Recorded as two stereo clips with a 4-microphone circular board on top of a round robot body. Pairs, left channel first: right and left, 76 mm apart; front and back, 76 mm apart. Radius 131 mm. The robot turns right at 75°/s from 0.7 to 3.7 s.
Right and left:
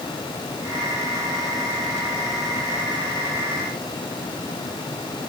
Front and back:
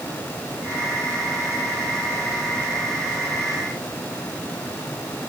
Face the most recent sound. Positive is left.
No sound to turn to.